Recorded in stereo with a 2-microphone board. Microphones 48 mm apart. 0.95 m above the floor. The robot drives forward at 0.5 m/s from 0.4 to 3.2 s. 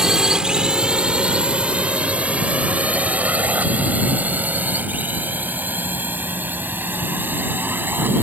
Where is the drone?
10° right (ahead or behind); by 8.2 s 45° right (ahead or behind).